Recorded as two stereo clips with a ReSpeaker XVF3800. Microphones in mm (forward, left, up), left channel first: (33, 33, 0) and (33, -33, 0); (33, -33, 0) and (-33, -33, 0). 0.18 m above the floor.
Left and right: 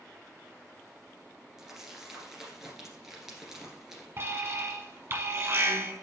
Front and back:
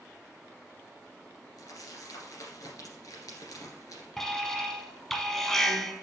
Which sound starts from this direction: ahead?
Crumpling, at 1.6 s.